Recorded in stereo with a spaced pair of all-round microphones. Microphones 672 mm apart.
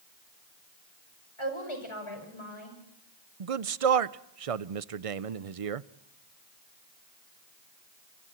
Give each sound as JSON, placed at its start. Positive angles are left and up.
{"t": 1.4, "sound": "a woman speaking", "side_deg": 45, "distance_m": 6.0}
{"t": 3.4, "sound": "a man speaking", "side_deg": -55, "distance_m": 0.6}